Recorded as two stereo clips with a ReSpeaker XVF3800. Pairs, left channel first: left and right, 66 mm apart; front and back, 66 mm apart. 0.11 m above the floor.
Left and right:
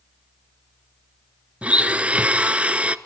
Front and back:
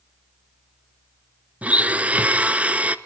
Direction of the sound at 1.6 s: 135° right.